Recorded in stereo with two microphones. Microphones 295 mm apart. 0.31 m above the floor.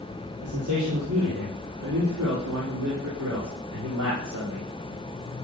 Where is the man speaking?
75° right (ahead or behind), 8 m; by 4.7 s 85° right, 11.5 m.